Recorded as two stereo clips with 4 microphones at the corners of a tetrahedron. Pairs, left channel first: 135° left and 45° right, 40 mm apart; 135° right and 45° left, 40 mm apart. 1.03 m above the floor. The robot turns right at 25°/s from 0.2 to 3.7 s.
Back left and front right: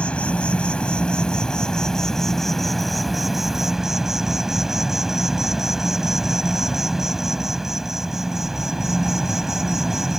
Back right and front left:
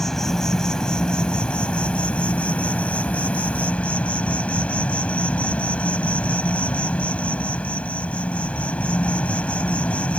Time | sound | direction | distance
0.0 | an insect | 155° left | ?